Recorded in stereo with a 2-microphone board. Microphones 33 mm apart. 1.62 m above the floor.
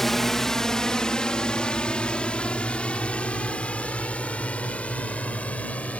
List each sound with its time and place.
0.0 s a drone: 5° left (ahead or behind); by 6.0 s 45° left (ahead or behind)